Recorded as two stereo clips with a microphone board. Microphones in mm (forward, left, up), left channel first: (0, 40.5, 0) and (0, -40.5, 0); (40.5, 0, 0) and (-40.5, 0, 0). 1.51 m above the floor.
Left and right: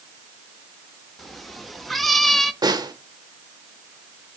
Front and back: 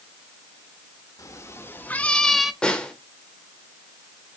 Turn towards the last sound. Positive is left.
turn(degrees=-75)